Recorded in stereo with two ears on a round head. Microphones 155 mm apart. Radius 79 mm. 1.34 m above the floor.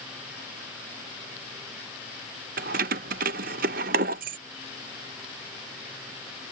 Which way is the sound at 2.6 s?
50° right (ahead or behind).